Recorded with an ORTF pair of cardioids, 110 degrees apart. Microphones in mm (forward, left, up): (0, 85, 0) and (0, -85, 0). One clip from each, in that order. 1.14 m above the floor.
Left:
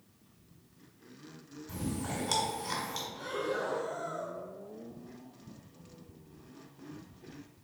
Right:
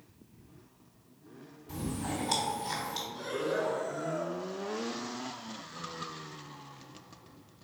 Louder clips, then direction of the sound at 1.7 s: Right 2 dB; 20° left.